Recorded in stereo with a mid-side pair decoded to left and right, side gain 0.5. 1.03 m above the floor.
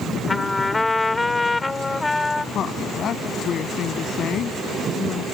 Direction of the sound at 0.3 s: 15° left.